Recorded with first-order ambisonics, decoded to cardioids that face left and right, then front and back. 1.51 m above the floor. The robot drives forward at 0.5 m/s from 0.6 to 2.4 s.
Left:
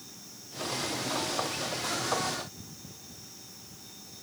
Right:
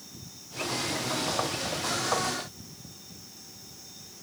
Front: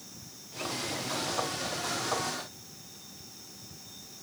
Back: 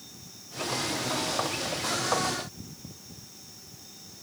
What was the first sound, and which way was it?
Only background noise.